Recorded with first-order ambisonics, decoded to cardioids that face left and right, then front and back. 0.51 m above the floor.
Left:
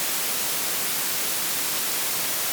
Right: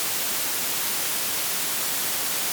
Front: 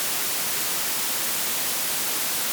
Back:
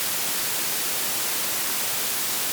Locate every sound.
Only background noise.